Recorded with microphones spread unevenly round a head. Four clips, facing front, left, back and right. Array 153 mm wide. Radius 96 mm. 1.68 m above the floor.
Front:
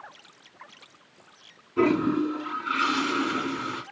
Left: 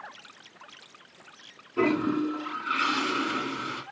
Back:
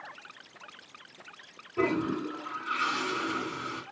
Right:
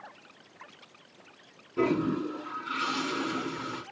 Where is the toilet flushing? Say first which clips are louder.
Left 2 dB, front 6 dB; 30° left, 3 m.